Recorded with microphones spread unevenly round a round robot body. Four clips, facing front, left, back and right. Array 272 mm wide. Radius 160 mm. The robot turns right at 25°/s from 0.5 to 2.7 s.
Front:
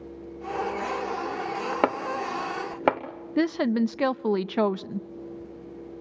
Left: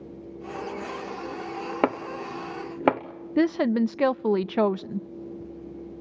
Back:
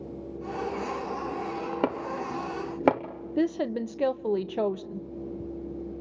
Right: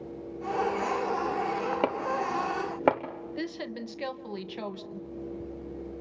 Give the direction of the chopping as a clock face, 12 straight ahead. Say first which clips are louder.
Left 6 dB, front 4 dB; 8 o'clock.